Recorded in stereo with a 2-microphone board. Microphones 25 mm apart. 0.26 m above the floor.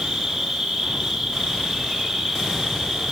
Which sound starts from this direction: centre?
An insect, at 0.0 s.